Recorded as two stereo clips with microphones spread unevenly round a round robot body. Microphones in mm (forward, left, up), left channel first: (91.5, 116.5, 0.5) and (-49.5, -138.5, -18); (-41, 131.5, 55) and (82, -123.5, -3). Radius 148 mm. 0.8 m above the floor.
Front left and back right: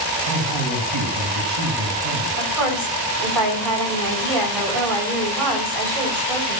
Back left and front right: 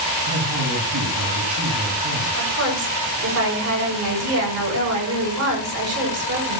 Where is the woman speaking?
100° right, 7.5 m.